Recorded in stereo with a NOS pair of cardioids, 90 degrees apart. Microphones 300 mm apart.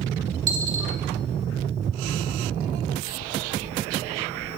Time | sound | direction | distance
0.5 | a dropped coin | 60° right | 2 m